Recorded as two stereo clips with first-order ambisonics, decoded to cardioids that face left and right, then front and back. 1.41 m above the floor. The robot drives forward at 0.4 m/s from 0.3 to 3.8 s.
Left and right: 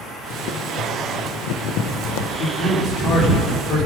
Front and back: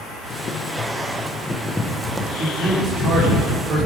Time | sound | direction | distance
0.3 | boiling | 60° left | 1.2 m
2.4 | a man speaking | 130° left | 4 m